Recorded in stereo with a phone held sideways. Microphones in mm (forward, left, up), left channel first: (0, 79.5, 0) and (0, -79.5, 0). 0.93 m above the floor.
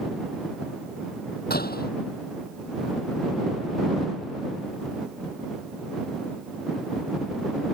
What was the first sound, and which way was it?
A door slam, 75° left (ahead or behind).